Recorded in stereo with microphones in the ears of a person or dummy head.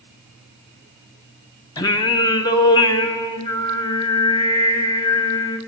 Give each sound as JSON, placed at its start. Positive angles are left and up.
{"t": 1.8, "sound": "singing", "side_deg": 15, "distance_m": 0.5}